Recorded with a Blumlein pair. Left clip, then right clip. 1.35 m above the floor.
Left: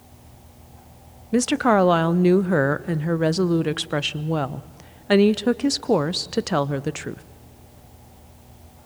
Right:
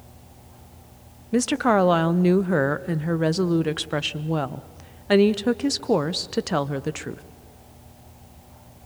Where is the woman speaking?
5° left, 0.6 m.